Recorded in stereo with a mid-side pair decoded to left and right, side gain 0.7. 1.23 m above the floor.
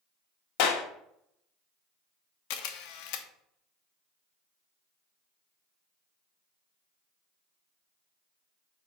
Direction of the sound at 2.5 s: 65° left.